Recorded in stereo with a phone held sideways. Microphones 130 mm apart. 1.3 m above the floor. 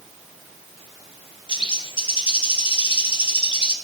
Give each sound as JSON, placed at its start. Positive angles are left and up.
{"t": 1.5, "sound": "a bird", "side_deg": 40, "distance_m": 1.4}